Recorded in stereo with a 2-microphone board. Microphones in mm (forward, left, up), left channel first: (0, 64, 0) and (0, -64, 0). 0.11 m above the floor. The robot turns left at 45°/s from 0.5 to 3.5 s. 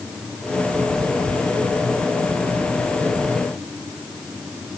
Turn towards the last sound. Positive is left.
No sound to turn to.